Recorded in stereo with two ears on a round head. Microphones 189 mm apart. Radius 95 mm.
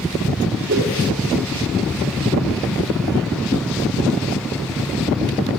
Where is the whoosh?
45° right (ahead or behind), 2.5 m.